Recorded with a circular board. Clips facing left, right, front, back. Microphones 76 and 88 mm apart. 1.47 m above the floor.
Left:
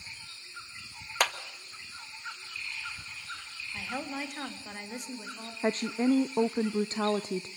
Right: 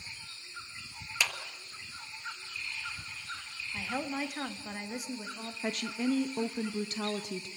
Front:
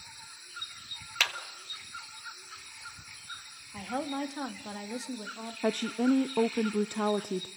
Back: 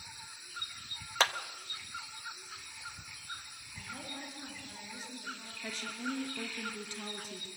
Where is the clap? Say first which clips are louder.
Left 5 dB, back 4 dB; 125° left, 1.5 m.